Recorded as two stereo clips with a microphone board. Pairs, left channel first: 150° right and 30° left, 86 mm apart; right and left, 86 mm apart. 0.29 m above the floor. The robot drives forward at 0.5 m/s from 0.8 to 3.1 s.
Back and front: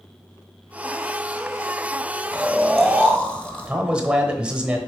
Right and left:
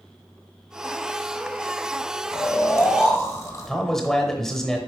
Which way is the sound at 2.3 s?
55° right.